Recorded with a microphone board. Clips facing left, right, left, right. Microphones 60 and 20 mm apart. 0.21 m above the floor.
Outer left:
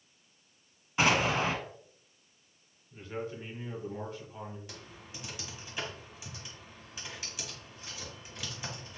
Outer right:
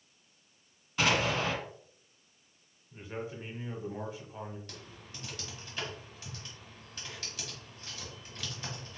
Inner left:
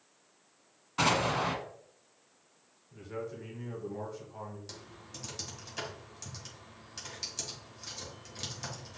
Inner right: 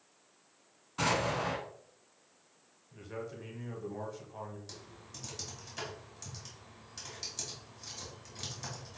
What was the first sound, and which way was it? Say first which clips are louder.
An explosion: outer left 2 dB, inner left 3 dB; 30° left (ahead or behind).